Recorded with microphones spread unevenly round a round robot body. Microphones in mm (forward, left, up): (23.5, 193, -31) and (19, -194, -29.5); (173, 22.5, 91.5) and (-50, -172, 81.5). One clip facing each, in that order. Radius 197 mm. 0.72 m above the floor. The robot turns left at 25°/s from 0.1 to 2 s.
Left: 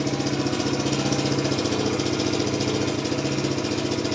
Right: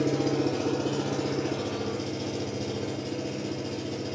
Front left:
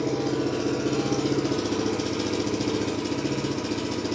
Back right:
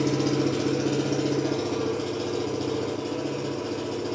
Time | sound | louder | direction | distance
0.0 | an engine running | left 1 dB, back right 2 dB | 150° left | 1.3 m